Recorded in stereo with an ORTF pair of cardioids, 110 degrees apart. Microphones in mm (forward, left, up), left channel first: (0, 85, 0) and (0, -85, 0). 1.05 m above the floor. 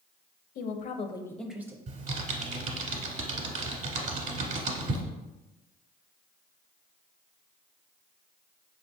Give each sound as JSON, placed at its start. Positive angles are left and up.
{"t": 0.6, "sound": "a woman speaking", "azimuth_deg": 65, "distance_m": 0.7}
{"t": 1.9, "sound": "typing on a keyboard", "azimuth_deg": -50, "distance_m": 1.2}